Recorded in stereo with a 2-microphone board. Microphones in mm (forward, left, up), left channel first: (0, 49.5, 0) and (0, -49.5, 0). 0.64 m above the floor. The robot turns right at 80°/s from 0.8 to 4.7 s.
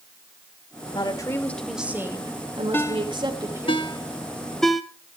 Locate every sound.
0.9 s a woman speaking: 120° left, 2.5 m; by 3.7 s 15° right, 2.5 m
2.7 s a ringtone: 20° left (ahead or behind), 1.1 m; by 4.8 s centre (ahead or behind), 1.1 m